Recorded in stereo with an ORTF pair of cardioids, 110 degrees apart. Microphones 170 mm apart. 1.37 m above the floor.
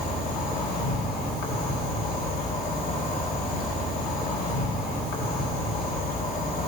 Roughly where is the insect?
Ahead left.